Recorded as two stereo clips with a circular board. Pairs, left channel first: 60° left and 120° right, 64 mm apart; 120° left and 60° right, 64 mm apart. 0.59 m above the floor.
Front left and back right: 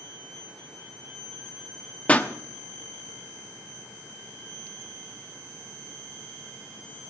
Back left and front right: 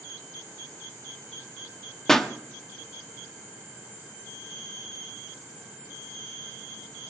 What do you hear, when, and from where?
2.1 s a pop: 50° left, 1.0 m